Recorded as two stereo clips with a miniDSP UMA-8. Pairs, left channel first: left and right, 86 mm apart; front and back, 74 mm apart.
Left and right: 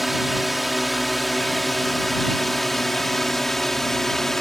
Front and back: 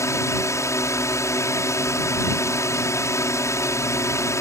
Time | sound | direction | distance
0.0 | a drone | straight ahead | ?